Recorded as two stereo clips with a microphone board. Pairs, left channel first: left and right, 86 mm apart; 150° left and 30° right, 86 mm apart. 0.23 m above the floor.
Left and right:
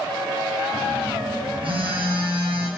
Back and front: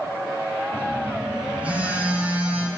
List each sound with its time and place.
0.7 s a phone buzzing: 105° right, 3 m